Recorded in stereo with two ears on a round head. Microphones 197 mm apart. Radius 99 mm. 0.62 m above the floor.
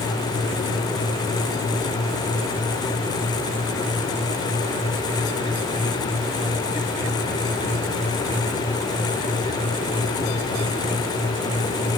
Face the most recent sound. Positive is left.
No sound to turn to.